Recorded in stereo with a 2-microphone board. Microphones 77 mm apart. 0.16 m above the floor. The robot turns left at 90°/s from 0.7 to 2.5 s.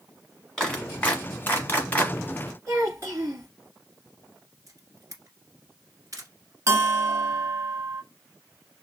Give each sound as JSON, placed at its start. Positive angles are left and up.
{"t": 0.6, "sound": "a clap", "side_deg": 10, "distance_m": 1.2}
{"t": 2.7, "sound": "a child speaking", "side_deg": -40, "distance_m": 1.8}
{"t": 4.7, "sound": "a camera shutter", "side_deg": -45, "distance_m": 1.4}
{"t": 6.7, "sound": "a bell", "side_deg": -40, "distance_m": 0.6}